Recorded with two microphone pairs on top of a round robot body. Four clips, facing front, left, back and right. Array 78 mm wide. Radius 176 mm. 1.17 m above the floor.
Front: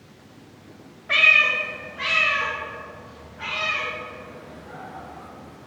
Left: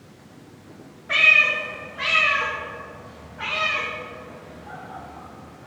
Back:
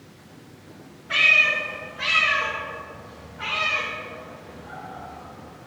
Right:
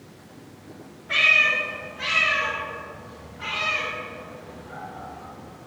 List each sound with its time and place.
1.1 s a cat meowing: 25° left, 1.3 m; by 5.7 s 105° left, 3.5 m